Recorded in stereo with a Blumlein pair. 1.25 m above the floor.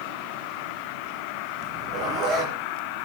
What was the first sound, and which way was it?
A zipper, 35° right.